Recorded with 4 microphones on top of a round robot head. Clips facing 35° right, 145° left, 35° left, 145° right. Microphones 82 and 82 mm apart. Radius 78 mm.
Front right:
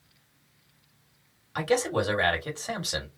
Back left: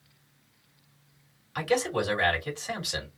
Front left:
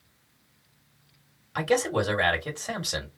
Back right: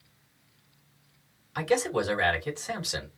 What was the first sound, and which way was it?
A man speaking, 10° left.